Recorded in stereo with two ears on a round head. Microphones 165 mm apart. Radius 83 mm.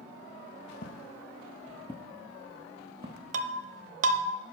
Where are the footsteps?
50° left (ahead or behind), 1.2 m; by 3.2 s 30° right (ahead or behind), 1.6 m.